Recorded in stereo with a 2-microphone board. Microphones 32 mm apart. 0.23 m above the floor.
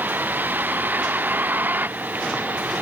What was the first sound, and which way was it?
A vehicle, 85° right.